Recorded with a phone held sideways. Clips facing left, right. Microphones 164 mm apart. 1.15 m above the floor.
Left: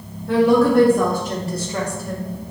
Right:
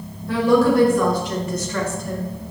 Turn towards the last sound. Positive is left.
turn(degrees=-15)  # may be behind; listen again after turning